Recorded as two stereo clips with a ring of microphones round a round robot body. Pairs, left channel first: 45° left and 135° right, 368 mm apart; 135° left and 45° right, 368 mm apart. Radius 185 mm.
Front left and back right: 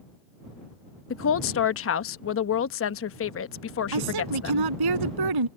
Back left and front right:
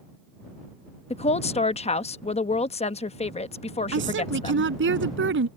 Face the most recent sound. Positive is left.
turn(degrees=-105)